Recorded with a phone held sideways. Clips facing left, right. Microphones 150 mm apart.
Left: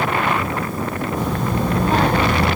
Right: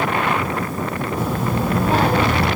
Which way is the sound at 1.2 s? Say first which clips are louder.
Even; 5° right (ahead or behind).